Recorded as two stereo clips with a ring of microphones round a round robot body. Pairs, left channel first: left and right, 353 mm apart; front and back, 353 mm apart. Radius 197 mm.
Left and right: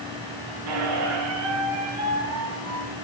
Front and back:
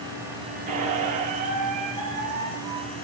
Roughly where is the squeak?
Right.